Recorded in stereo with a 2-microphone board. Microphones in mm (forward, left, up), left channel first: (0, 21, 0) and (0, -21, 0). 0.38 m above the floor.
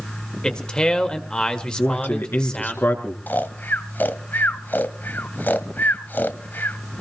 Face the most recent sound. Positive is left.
turn(degrees=50)  # may be behind; listen again after turning